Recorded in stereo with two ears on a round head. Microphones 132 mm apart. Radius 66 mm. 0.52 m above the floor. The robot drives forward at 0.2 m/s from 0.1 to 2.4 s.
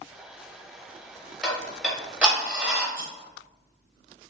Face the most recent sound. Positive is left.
turn(degrees=-80)